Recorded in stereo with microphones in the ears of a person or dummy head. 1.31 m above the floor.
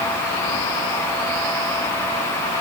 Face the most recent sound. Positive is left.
No sound to turn to.